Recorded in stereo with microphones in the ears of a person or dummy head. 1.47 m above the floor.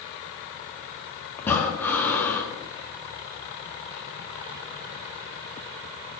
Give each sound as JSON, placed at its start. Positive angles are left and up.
{"t": 1.4, "sound": "breathing", "side_deg": 15, "distance_m": 1.8}